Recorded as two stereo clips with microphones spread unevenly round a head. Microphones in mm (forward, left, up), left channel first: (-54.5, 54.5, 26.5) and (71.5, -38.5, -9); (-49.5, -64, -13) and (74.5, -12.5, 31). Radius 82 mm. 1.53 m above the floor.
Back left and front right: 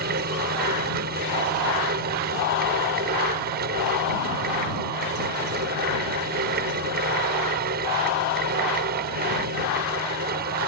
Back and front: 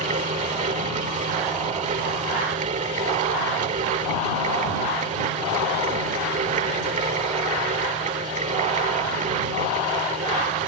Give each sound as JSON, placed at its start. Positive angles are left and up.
{"t": 0.0, "sound": "a fan", "azimuth_deg": -5}